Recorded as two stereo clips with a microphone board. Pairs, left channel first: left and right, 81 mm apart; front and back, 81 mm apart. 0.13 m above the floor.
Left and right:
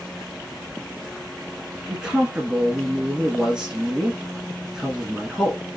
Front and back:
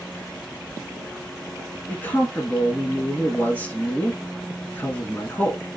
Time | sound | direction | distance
1.9 | a man speaking | 25° right | 1.1 m